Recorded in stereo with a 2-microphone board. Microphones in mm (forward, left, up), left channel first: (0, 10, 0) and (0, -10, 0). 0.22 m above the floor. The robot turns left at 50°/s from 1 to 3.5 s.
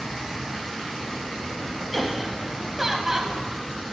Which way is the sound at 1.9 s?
Centre (ahead or behind).